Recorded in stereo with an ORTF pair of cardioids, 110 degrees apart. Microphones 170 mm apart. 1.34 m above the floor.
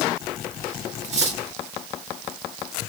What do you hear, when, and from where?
1.0 s cutlery clinking: 45° right, 1.7 m